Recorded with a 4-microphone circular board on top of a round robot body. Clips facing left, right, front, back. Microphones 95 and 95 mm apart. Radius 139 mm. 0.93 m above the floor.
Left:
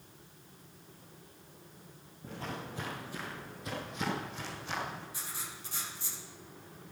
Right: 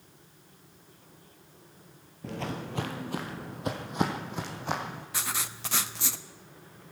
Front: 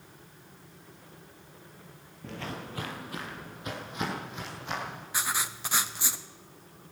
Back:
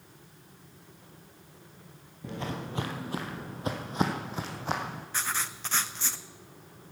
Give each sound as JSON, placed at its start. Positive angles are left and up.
{"t": 2.2, "sound": "footsteps", "azimuth_deg": -105, "distance_m": 1.1}
{"t": 5.1, "sound": "writing", "azimuth_deg": -80, "distance_m": 0.7}